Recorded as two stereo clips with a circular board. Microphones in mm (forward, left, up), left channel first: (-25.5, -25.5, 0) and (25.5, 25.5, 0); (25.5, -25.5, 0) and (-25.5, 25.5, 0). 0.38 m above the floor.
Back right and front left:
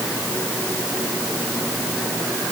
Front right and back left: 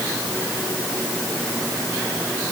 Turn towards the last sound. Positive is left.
No sound to turn to.